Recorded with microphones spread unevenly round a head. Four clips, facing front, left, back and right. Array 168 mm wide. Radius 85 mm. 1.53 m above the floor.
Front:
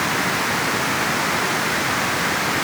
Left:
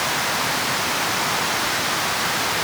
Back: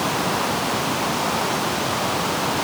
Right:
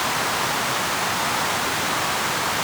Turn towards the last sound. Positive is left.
No sound to turn to.